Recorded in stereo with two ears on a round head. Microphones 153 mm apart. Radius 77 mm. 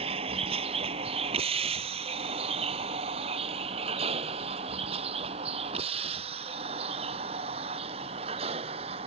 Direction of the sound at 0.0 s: 35° right (ahead or behind).